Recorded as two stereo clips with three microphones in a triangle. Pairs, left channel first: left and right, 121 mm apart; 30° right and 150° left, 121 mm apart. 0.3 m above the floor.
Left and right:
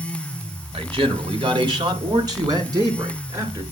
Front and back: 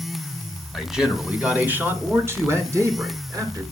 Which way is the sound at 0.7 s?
120° right.